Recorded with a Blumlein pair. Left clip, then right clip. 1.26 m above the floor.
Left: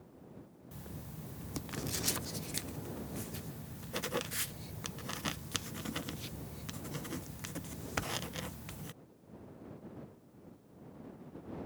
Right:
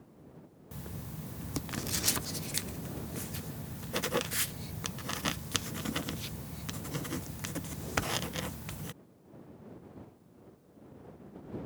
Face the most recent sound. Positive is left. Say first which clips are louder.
# right 4 dB
turn(degrees=-15)